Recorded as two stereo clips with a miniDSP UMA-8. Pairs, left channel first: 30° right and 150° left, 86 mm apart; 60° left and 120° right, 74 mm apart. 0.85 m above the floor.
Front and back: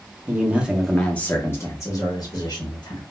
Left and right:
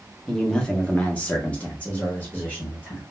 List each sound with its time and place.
0.3 s a man speaking: 130° left, 0.6 m; by 3.0 s 5° right, 1.3 m